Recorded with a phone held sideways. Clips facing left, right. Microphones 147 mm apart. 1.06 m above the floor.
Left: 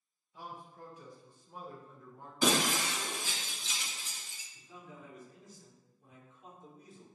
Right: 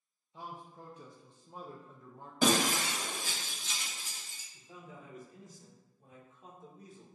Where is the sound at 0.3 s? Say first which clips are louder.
Right 1 dB; 25° right (ahead or behind), 0.7 m.